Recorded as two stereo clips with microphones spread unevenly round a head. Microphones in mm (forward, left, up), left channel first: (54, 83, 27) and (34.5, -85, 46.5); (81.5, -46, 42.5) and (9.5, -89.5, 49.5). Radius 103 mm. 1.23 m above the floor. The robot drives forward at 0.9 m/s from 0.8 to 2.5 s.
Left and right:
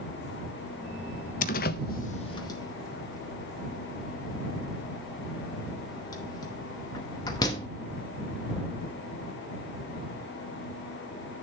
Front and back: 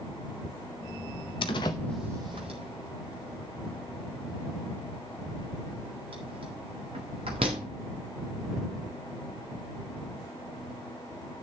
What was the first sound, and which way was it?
A door slam, 45° left.